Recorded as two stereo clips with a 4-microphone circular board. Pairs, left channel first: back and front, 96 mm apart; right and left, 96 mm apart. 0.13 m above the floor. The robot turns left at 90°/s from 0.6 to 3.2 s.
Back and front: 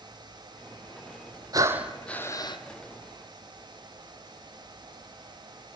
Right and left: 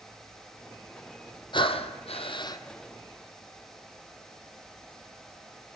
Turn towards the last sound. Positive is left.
turn(degrees=160)